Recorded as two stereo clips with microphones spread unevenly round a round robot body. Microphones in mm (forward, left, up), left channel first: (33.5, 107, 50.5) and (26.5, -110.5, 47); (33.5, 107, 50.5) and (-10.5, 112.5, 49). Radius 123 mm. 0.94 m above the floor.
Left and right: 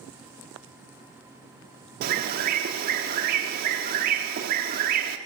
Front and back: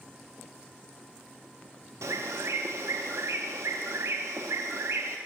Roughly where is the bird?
Behind right.